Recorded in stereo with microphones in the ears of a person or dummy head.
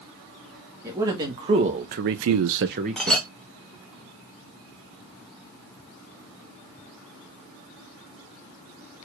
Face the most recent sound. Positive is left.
turn(degrees=0)  # may be behind; listen again after turning